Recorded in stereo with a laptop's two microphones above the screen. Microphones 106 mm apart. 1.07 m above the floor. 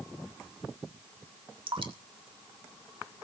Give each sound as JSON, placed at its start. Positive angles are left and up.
{"t": 1.7, "sound": "dripping", "side_deg": -55, "distance_m": 1.5}